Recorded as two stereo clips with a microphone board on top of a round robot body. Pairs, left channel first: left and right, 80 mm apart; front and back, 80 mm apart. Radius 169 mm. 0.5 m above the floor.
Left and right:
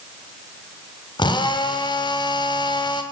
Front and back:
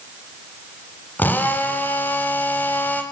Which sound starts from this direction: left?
A drill, at 1.2 s.